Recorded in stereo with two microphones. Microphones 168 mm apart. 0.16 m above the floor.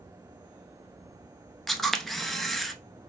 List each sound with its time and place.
1.7 s a camera shutter: centre (ahead or behind), 0.6 m